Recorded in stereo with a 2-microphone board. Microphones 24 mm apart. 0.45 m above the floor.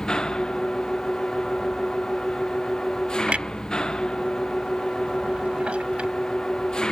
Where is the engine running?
30° left (ahead or behind).